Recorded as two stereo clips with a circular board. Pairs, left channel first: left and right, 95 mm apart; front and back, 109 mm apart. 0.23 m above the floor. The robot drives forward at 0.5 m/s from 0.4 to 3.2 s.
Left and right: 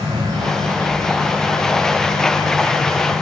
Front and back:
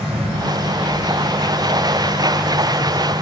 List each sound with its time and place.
0.0 s an insect: 140° right, 6 m; by 3.2 s 150° right, 7 m